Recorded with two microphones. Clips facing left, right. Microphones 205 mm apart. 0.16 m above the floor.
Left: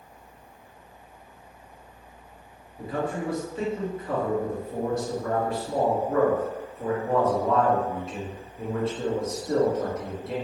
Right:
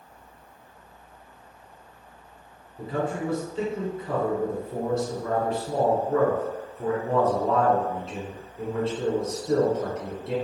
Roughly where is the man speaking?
Right.